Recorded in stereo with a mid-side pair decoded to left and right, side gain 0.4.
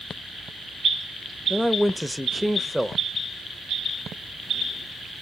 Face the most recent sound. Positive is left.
turn(degrees=5)